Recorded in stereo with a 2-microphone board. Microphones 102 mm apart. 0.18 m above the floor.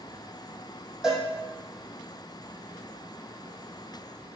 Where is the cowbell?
5° right (ahead or behind), 3 m.